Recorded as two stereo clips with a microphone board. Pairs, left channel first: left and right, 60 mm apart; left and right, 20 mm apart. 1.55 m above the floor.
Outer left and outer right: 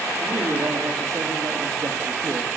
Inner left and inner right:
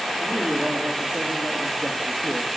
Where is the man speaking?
70° right (ahead or behind), 5 m; by 2.6 s 85° right, 3 m.